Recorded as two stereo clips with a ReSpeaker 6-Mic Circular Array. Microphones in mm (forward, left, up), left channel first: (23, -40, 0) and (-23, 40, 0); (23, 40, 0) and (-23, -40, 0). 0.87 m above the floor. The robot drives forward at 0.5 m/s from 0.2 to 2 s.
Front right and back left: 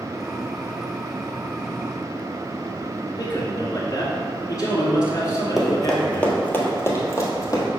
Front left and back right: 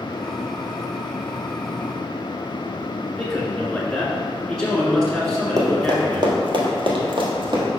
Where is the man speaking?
25° right, 2 m.